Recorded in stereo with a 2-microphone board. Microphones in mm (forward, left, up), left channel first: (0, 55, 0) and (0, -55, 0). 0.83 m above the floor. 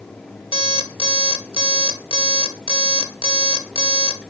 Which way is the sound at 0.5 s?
50° left (ahead or behind).